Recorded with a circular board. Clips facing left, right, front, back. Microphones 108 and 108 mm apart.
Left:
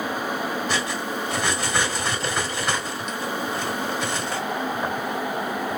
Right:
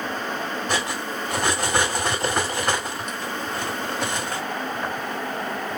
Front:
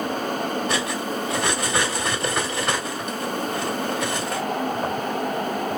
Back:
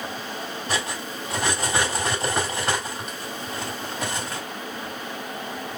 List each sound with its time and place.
0.7 s cutlery clinking: 120° right, 1.8 m